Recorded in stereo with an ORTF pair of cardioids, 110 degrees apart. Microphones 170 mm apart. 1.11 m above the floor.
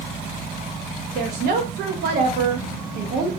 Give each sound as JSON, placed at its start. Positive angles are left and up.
{"t": 1.1, "sound": "a woman speaking", "azimuth_deg": -65, "distance_m": 1.2}